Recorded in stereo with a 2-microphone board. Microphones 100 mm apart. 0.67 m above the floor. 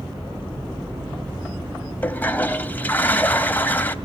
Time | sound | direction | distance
2.0 | a toilet flushing | 20° left (ahead or behind) | 0.6 m